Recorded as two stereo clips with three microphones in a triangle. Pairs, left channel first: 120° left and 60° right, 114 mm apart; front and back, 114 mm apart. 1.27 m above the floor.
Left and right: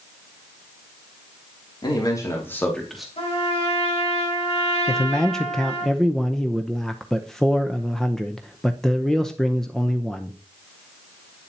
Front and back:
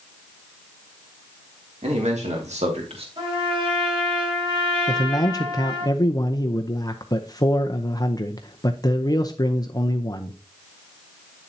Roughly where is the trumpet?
Behind left.